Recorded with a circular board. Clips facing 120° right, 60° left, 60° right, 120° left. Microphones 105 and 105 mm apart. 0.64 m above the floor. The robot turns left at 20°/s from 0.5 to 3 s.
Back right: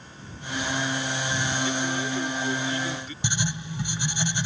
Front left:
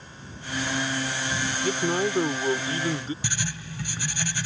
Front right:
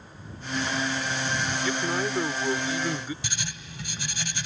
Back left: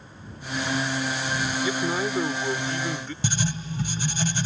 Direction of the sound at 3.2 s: 170° left.